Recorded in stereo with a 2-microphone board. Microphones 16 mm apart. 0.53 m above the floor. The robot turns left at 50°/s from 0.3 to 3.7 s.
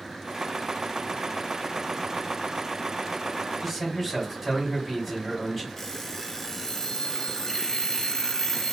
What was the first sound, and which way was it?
A man speaking, 5° right (ahead or behind).